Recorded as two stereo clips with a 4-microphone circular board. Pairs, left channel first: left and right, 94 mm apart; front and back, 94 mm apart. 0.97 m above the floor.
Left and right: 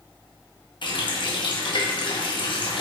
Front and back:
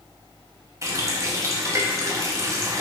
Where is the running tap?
125° left, 0.7 m.